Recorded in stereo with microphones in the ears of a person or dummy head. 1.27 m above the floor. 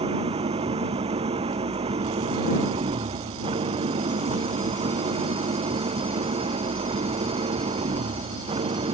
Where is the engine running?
25° right (ahead or behind).